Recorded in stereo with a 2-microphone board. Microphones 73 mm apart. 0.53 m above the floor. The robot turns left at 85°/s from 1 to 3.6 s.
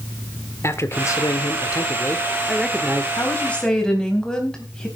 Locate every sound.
0.6 s a man speaking: 130° left, 1.6 m; by 3.1 s 45° right, 1.6 m
3.2 s a woman speaking: 45° left, 3.5 m; by 4.9 s 10° left, 3.5 m